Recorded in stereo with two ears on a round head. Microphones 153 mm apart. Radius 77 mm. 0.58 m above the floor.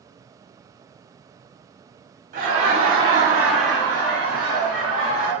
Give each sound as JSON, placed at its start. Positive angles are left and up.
{"t": 2.3, "sound": "laughter", "side_deg": -45, "distance_m": 1.0}